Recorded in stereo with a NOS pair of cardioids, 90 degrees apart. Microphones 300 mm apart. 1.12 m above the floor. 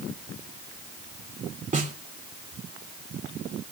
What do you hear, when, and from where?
1.7 s a snare drum: 25° right, 2.5 m